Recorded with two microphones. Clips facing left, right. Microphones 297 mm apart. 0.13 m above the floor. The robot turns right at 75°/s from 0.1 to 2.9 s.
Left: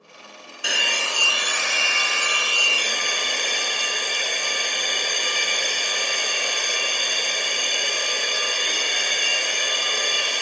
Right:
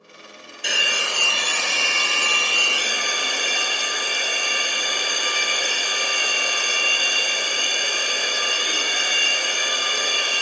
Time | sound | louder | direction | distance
0.6 | a hair dryer | right 1 dB | 175° left | 0.7 m